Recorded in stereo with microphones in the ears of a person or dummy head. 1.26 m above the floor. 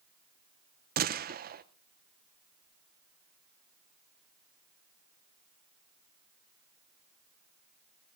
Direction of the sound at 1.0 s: 45° right (ahead or behind).